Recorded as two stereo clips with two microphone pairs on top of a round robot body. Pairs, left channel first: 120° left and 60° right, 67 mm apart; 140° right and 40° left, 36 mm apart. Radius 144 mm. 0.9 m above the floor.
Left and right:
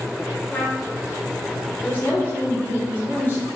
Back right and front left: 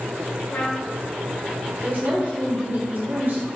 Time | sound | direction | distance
0.5 | a trumpet | 175° right | 3 m
1.8 | a woman speaking | 65° left | 3.5 m